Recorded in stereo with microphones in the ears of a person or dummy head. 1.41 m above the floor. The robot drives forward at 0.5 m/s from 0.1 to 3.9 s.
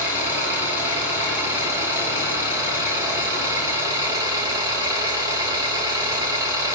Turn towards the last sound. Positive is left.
turn(degrees=-15)  # may be behind; listen again after turning